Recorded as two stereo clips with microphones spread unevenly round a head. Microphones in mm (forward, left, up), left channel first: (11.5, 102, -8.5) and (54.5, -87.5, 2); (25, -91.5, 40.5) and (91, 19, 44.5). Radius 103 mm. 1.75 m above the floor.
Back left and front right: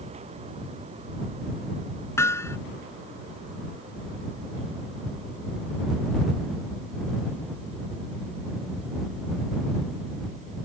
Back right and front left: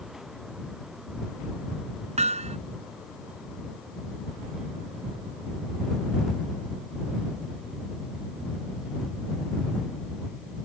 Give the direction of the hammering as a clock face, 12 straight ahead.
11 o'clock.